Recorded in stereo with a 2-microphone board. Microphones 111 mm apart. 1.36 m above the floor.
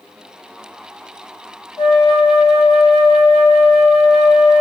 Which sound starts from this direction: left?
A flute, at 1.8 s.